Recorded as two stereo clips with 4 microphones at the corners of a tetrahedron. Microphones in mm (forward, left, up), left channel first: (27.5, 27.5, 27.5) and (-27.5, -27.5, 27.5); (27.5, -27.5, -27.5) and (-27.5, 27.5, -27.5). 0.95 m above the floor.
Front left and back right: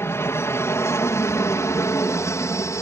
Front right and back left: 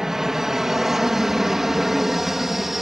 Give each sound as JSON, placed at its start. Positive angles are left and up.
{"t": 0.0, "sound": "an aircraft", "azimuth_deg": 55}